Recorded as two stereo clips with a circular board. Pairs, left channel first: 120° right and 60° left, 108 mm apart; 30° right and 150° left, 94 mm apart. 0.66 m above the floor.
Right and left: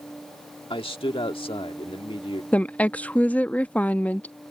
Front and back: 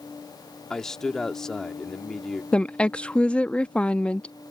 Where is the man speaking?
110° right.